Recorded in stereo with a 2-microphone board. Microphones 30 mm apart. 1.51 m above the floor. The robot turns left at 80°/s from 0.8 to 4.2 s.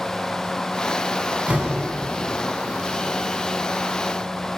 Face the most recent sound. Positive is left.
turn(degrees=10)